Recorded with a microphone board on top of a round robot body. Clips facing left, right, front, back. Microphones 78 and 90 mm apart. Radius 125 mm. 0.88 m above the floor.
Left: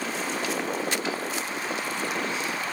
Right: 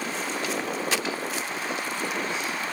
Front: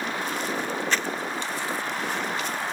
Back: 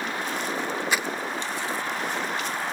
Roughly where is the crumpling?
Right.